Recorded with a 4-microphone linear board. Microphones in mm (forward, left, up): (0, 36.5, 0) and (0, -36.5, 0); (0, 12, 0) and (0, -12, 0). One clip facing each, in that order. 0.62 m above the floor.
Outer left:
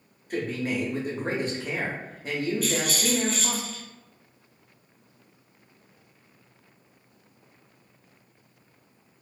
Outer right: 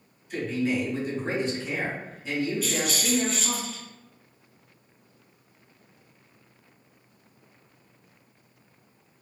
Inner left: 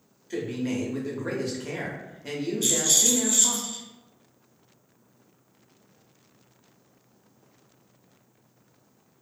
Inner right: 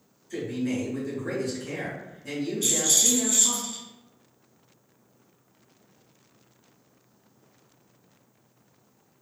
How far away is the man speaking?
About 0.7 m.